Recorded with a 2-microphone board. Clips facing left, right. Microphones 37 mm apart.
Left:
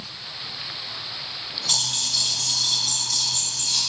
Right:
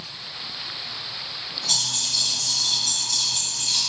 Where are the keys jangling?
45° left (ahead or behind), 0.9 m; by 3.8 s 20° right (ahead or behind), 0.7 m.